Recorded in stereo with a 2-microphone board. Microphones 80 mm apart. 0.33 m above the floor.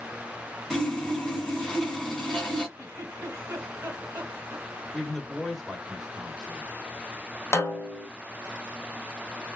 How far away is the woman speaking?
About 1.1 m.